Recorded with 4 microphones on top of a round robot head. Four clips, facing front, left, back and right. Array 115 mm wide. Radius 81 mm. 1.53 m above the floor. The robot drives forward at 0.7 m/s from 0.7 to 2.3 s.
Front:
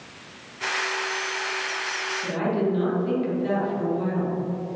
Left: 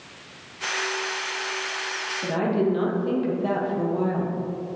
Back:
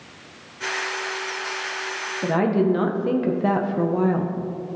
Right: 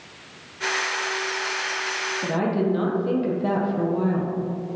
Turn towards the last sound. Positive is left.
turn(degrees=-170)